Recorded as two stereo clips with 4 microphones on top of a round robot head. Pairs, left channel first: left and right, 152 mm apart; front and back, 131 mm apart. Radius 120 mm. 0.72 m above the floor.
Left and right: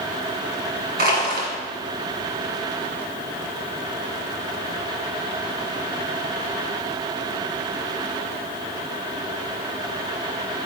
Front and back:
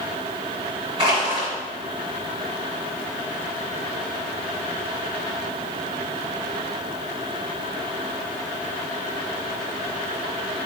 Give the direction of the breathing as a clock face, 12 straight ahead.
I don't hear breathing.